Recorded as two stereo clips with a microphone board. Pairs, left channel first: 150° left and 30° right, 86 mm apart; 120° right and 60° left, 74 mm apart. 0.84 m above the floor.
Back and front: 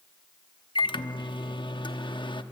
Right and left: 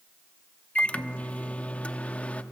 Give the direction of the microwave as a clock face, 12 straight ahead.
6 o'clock.